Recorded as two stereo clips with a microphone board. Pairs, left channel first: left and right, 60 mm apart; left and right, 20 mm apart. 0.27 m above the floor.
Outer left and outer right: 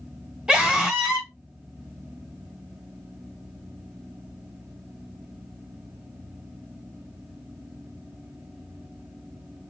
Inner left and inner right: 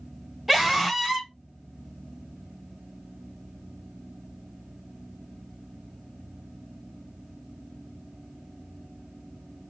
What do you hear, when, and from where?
0.5 s a scream: 15° right (ahead or behind), 1.1 m